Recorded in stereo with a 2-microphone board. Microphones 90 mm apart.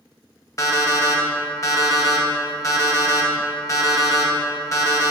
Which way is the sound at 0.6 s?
35° left (ahead or behind).